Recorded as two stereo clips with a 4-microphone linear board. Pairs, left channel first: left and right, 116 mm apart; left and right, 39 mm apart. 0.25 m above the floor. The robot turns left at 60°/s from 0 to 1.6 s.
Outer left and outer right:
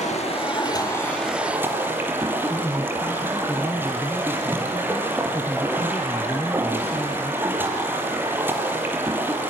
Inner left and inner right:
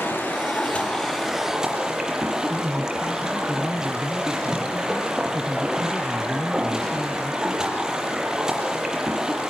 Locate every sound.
0.0 s running water: 80° left, 7.5 m; by 9.5 s 15° right, 7.5 m
2.5 s a man speaking: 20° left (ahead or behind), 2 m